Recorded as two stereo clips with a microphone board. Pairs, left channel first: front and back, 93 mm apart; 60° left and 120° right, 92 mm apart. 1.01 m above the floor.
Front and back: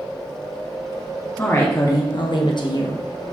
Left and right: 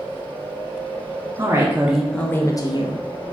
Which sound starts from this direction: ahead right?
A woman speaking, at 1.4 s.